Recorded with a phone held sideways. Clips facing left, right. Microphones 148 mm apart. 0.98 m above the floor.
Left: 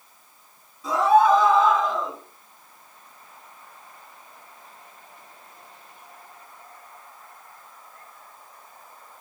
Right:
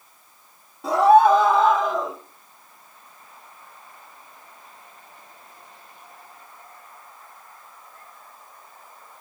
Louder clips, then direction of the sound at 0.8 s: Right 3 dB; 60° right (ahead or behind).